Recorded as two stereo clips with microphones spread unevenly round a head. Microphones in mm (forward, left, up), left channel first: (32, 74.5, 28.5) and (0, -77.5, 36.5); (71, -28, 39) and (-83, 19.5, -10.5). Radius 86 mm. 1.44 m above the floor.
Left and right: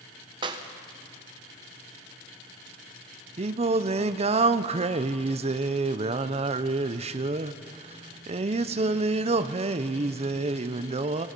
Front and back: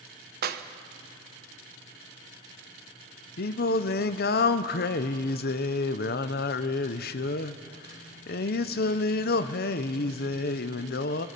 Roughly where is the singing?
Ahead right.